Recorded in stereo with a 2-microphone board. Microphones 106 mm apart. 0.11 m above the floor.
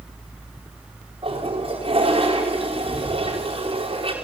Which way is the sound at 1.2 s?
60° right (ahead or behind).